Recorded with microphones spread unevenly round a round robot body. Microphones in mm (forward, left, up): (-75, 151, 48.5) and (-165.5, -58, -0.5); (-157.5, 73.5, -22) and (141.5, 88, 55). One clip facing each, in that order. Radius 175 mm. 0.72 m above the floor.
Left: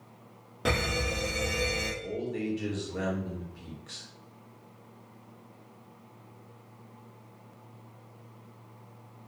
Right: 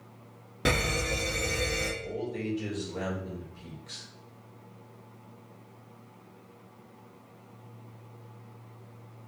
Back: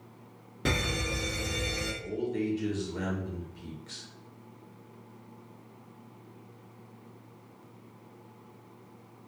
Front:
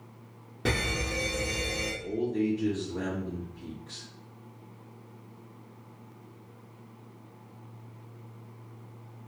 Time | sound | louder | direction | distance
0.7 | an alarm | right 1 dB, front 1 dB | 125° right | 1.0 m
2.0 | a man speaking | left 1 dB, front 3 dB | 145° left | 2 m